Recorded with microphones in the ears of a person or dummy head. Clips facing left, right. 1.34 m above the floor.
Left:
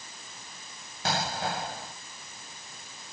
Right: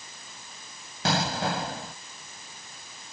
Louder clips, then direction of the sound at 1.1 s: Right 4 dB; 65° right (ahead or behind).